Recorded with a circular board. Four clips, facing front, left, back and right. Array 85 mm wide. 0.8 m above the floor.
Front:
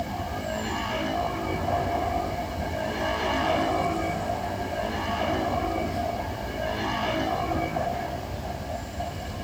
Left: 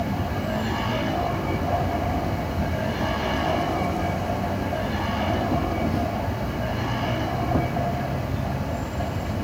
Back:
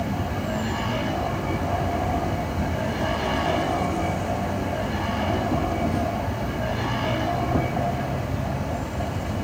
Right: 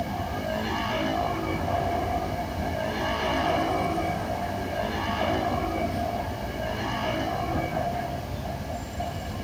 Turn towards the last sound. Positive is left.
turn(degrees=135)